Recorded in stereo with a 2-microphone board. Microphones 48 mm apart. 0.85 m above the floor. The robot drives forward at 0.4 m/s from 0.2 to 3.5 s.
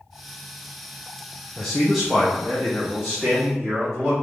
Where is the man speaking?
5° left (ahead or behind), 0.6 m; by 4.1 s centre (ahead or behind), 1.3 m.